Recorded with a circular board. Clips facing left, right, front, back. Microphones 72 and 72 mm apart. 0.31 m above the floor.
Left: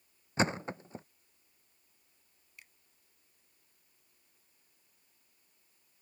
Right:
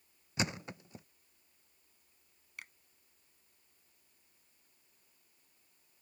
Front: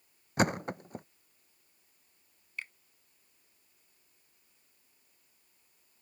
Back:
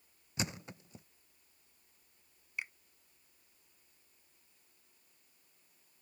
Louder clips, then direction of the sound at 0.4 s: Left 6 dB, front 12 dB; 35° left.